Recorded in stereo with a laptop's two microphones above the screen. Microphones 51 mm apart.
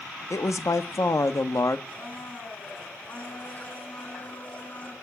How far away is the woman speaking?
About 1.3 m.